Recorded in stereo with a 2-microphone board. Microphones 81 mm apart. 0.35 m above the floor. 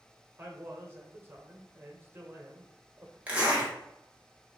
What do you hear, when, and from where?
0.4 s a man speaking: 30° right (ahead or behind), 1.0 m
3.3 s a zipper: 15° right (ahead or behind), 1.3 m